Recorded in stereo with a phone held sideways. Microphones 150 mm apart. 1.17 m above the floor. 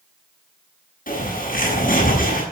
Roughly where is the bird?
Left.